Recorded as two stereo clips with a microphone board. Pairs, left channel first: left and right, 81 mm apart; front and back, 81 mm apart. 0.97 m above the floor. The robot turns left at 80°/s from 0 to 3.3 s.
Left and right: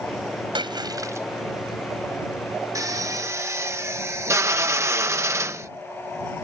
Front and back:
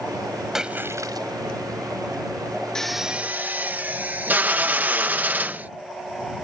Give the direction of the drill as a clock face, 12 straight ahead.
3 o'clock.